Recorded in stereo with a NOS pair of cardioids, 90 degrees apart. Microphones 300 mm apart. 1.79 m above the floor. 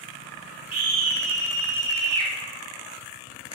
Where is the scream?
55° right, 1.3 m.